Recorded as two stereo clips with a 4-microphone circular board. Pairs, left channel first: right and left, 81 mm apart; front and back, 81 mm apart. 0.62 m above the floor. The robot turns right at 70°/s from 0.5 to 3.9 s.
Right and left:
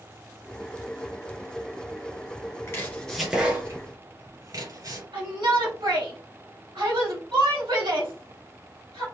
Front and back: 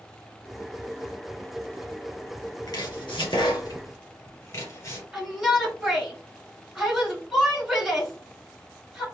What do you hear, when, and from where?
2.7 s chopping: 35° right, 3 m; by 5.0 s 50° left, 3 m
5.1 s a shout: 95° left, 3 m